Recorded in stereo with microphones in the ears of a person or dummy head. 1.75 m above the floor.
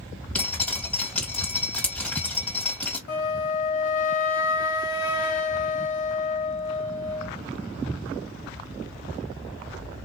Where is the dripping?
5° left (ahead or behind), 1.8 m.